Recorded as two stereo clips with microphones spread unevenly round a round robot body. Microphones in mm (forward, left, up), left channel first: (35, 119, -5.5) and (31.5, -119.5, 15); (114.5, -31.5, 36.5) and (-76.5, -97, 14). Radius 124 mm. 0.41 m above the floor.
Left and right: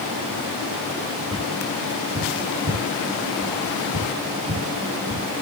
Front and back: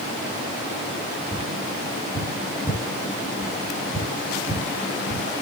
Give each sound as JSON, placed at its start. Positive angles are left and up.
{"t": 1.3, "sound": "tapping", "azimuth_deg": -55, "distance_m": 3.5}